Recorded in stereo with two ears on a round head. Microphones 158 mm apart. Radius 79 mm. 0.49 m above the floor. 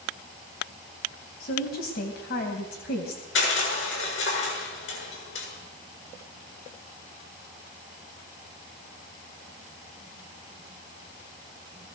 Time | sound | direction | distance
1.4 | a woman speaking | 60° left (ahead or behind) | 3 m
3.4 | crushing | 75° left (ahead or behind) | 8 m